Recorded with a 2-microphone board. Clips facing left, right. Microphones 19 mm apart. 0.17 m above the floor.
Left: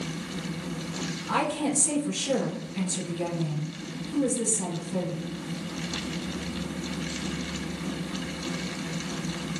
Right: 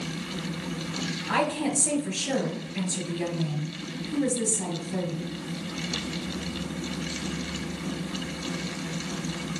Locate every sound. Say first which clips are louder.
1.3 s a woman speaking: even; 40° right (ahead or behind), 3.5 m